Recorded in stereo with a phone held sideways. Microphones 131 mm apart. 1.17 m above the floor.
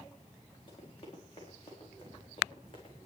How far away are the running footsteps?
About 6 m.